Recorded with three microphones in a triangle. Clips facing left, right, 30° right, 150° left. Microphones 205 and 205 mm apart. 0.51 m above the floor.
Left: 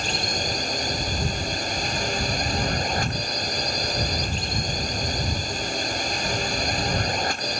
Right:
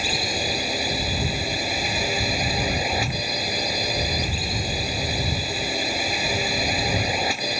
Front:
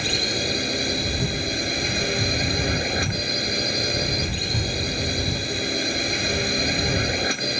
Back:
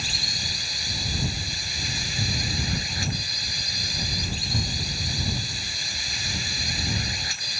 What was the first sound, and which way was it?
A drone, 5° right.